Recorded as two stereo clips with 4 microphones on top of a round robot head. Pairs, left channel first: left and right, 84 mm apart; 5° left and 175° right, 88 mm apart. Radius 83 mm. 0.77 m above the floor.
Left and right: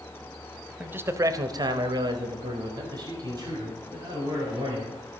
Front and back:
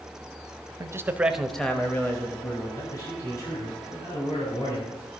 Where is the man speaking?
155° right, 0.8 m; by 5.2 s 45° right, 4 m.